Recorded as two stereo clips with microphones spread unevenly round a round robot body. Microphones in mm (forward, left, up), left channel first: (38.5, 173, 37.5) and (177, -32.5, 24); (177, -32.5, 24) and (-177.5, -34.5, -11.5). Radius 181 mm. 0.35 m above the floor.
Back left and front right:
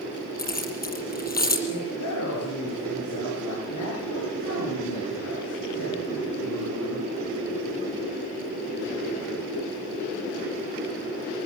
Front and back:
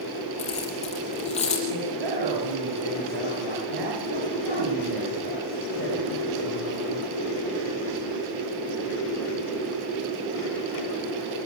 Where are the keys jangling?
75° left, 7 m.